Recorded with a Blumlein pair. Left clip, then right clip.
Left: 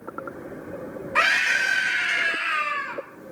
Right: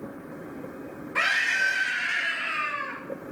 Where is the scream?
20° left, 2.5 m.